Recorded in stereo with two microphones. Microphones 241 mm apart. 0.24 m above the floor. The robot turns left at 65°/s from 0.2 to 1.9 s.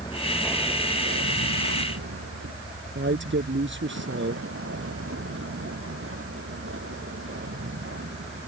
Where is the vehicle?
20° left (ahead or behind); by 8.5 s 55° right (ahead or behind).